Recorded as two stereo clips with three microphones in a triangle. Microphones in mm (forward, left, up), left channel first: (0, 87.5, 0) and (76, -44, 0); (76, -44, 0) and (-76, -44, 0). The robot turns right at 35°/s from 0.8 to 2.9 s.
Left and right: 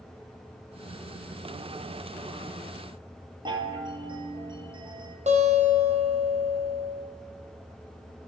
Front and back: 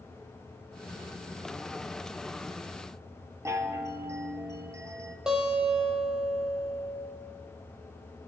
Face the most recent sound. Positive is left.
turn(degrees=-95)